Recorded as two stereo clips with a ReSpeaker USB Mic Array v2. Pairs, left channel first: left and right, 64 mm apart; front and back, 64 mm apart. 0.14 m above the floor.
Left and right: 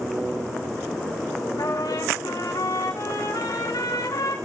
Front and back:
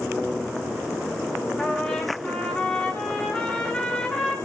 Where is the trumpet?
80° left, 5.5 m.